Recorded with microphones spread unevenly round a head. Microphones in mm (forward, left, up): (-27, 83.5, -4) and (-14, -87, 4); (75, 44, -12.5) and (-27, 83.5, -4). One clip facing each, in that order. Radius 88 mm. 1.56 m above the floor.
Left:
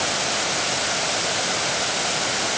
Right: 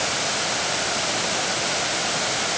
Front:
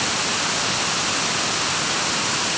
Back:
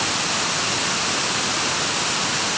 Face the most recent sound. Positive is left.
No sound to turn to.